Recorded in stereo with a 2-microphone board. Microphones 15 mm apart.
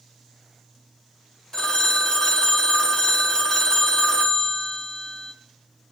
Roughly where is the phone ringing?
Left.